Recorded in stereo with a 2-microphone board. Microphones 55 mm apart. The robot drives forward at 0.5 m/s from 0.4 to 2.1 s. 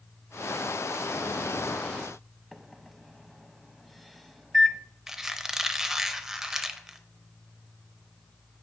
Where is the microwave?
5° left (ahead or behind), 0.7 m.